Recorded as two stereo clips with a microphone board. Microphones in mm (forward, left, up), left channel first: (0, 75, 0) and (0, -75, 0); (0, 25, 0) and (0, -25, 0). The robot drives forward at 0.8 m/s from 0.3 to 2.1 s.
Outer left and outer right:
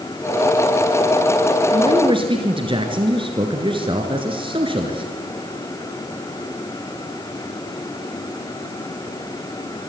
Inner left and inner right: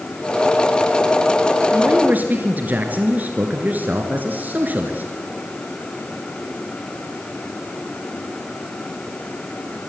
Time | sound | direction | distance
1.7 | a man speaking | 30° right (ahead or behind) | 2.5 m